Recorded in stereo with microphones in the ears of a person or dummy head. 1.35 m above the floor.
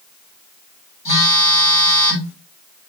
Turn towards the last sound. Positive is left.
turn(degrees=35)  # may be behind; listen again after turning